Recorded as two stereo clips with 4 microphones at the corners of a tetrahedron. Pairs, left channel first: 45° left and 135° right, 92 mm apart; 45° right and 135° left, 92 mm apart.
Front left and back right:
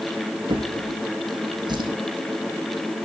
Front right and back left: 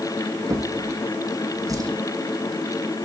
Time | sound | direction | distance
0.5 | a drawer | 175° right | 6.5 m